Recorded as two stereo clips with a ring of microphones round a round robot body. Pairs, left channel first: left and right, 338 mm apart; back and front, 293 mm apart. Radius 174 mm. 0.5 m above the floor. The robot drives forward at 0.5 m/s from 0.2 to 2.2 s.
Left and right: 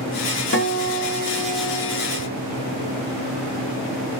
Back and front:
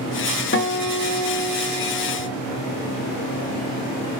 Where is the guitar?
140° left, 1.8 m; by 2.3 s 155° left, 2.5 m.